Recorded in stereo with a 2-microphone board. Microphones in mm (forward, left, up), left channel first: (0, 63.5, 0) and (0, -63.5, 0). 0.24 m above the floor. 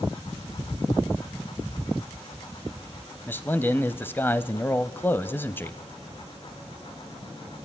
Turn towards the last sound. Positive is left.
turn(degrees=15)  # may be behind; listen again after turning